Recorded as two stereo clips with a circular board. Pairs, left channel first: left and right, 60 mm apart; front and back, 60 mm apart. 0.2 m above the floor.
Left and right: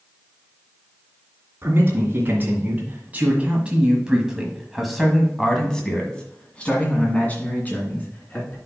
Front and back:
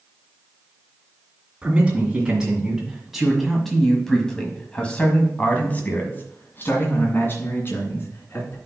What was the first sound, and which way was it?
A man speaking, 115° right.